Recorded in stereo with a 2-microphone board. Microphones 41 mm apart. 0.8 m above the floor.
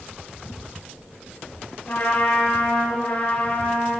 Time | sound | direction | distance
1.9 | a trumpet | 50° left (ahead or behind) | 7 m